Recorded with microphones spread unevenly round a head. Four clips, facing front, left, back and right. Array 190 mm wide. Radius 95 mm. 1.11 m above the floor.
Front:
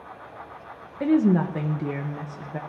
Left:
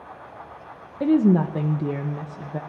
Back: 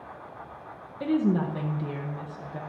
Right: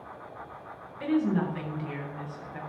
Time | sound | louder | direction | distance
1.0 | a woman speaking | left 8 dB, front 5 dB | 70° left | 0.7 m